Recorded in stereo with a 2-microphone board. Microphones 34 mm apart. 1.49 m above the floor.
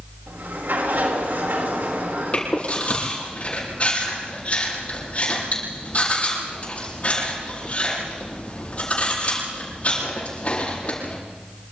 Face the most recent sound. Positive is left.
turn(degrees=40)  # may be behind; listen again after turning